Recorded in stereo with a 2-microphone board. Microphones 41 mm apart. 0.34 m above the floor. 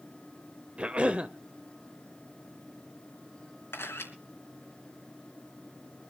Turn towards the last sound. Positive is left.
turn(degrees=75)  # may be behind; listen again after turning